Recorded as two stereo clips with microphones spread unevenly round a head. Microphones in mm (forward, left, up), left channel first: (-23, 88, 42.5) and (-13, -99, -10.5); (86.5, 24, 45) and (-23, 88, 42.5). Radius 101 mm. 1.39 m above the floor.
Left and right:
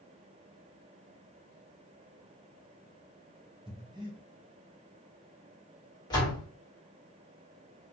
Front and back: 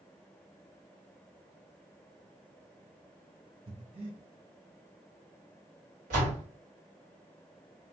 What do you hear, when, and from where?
3.7 s breathing: 160° right, 0.6 m
6.1 s a door slam: 155° left, 1.2 m